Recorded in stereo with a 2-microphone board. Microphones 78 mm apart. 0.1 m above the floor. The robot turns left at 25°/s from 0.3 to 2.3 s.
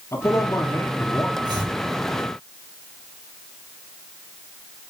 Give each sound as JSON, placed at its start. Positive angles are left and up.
{"t": 0.1, "sound": "a man speaking", "side_deg": 35, "distance_m": 1.7}
{"t": 1.4, "sound": "chopping", "side_deg": -65, "distance_m": 3.0}